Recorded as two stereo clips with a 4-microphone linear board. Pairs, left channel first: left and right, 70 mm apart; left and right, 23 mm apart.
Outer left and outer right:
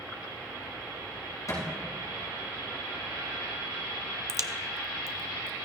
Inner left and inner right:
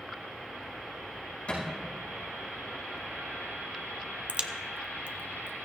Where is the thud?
55° left (ahead or behind), 6 m.